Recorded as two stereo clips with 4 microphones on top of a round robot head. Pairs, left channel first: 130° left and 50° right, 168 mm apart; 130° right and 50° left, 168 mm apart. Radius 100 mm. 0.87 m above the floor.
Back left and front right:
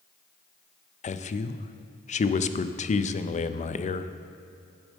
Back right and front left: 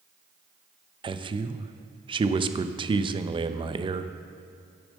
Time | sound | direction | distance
1.0 | a man speaking | 100° left | 0.6 m